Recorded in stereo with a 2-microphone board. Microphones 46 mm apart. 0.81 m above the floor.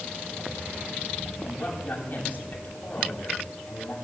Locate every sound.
1.4 s a man speaking: 45° left (ahead or behind), 6.5 m